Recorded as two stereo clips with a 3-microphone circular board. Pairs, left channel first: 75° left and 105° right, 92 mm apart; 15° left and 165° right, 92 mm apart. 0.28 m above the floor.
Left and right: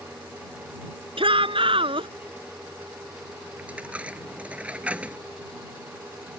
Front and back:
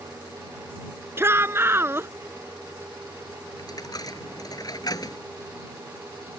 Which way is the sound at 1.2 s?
100° right.